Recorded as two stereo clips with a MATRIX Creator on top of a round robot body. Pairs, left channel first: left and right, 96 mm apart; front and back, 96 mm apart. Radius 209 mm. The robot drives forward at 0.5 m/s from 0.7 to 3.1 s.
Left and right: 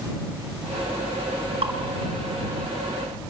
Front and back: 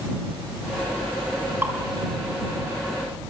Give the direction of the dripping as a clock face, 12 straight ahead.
4 o'clock.